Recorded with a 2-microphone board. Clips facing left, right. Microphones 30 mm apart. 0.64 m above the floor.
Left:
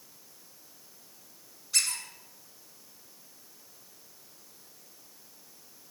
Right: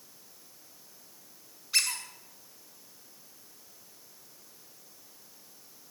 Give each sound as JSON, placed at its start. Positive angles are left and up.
{"t": 1.7, "sound": "a squeak", "side_deg": -30, "distance_m": 1.7}